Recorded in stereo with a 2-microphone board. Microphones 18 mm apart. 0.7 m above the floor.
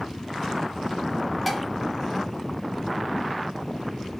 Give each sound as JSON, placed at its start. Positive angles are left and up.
{"t": 1.5, "sound": "dishes clattering", "side_deg": 5, "distance_m": 0.7}